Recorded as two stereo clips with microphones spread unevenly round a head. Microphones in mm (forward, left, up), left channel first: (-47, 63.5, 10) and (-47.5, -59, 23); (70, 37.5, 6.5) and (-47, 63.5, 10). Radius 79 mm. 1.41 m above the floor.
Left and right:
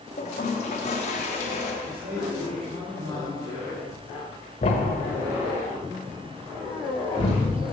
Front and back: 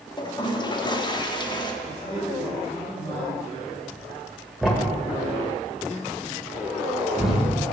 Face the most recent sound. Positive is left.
turn(degrees=80)